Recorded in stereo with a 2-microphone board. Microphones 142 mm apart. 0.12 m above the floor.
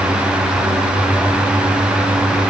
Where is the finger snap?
I don't hear a finger snap.